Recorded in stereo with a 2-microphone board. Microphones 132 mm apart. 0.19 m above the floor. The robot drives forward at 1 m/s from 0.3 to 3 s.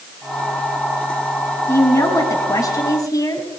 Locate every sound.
1.7 s a woman speaking: 20° left (ahead or behind), 1.8 m; by 3.5 s 25° left (ahead or behind), 1.5 m